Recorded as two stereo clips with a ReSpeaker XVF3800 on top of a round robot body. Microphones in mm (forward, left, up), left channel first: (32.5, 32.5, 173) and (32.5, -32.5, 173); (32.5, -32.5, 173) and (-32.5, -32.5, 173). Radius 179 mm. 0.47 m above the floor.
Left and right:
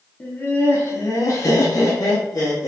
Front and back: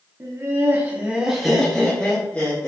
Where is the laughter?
145° left, 1.2 m; by 2.7 s 55° left, 1.4 m.